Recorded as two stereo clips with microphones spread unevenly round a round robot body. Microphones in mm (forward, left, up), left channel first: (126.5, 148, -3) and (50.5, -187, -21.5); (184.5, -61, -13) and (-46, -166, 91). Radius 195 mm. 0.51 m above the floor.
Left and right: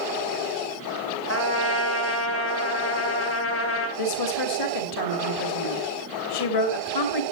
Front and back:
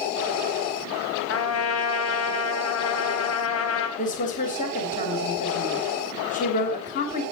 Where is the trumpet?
25° left, 3 m.